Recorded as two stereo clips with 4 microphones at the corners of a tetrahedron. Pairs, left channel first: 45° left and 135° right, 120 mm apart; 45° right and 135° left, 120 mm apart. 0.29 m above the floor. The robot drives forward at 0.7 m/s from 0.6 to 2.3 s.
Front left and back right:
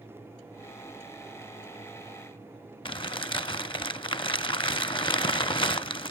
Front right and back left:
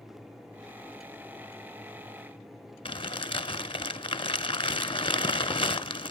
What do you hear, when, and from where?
2.9 s crumpling: straight ahead, 0.6 m